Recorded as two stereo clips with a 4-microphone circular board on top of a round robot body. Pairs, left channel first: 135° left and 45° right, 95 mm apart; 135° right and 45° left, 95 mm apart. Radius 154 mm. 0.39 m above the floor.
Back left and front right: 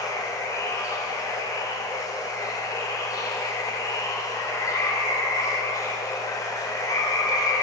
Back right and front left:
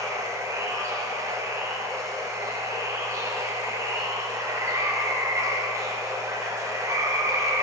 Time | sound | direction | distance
0.0 | running water | 95° left | 1.6 m